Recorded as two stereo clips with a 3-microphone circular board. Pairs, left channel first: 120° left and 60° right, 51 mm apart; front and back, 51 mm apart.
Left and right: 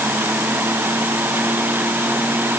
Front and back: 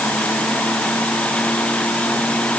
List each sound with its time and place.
Only background noise.